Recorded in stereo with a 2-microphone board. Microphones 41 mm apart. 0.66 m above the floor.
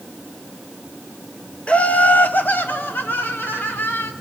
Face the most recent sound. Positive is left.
turn(degrees=55)  # may be behind; listen again after turning